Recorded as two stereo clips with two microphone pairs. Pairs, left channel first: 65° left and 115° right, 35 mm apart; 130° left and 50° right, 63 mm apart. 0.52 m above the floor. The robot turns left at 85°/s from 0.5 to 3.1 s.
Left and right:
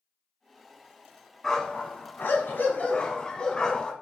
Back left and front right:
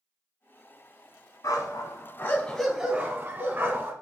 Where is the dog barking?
140° left, 1.0 m; by 3.9 s straight ahead, 1.0 m.